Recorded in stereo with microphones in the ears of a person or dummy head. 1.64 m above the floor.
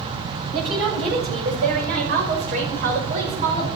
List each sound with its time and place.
0.5 s a woman speaking: 70° right (ahead or behind), 7 m; by 3.7 s 40° right (ahead or behind), 5.5 m